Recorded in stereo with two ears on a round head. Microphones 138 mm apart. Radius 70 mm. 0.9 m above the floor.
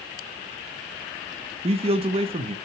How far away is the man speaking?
About 0.9 m.